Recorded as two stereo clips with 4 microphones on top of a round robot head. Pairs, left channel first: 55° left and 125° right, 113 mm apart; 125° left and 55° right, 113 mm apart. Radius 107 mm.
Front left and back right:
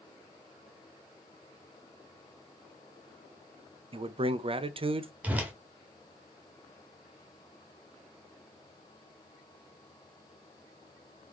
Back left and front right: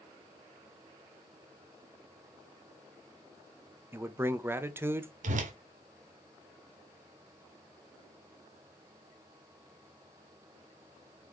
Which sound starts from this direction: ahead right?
A whoosh, at 5.2 s.